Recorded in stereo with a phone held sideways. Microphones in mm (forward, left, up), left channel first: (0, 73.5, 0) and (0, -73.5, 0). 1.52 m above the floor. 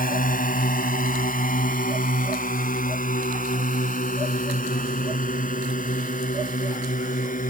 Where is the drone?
65° left (ahead or behind); by 7.5 s 60° left (ahead or behind).